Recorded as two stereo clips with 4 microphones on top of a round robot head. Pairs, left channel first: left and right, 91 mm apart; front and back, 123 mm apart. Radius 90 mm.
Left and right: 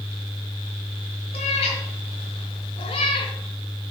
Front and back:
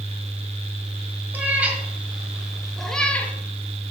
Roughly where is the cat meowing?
Left.